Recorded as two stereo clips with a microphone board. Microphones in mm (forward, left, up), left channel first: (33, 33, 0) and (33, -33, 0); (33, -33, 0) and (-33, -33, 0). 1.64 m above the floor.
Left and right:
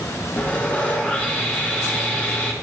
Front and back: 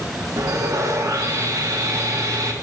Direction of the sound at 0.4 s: 155° left.